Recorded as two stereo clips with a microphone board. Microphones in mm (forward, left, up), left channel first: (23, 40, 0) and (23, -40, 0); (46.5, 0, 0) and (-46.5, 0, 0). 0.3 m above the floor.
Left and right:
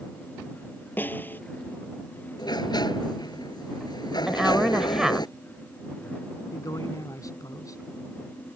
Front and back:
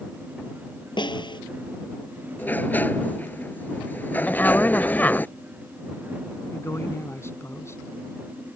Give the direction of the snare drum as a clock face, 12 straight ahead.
11 o'clock.